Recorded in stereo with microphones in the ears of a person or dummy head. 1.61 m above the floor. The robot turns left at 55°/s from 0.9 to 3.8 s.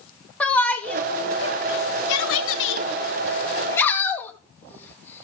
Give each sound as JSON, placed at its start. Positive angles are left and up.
{"t": 0.4, "sound": "a shout", "side_deg": 10, "distance_m": 1.5}